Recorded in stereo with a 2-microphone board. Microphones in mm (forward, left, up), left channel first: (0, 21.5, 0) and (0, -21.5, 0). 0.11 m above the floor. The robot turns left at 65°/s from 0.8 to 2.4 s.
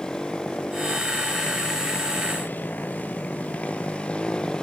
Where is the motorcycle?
20° left (ahead or behind).